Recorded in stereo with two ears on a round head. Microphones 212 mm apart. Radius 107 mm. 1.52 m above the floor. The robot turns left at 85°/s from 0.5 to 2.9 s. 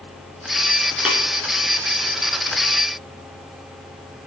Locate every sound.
1.1 s tapping: 5° right (ahead or behind), 3.5 m; by 1.2 s 15° right (ahead or behind), 3.5 m